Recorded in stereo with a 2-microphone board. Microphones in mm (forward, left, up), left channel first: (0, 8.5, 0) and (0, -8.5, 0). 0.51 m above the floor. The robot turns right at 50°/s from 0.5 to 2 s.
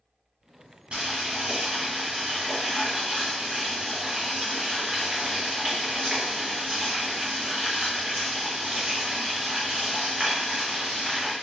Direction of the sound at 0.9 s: 90° right.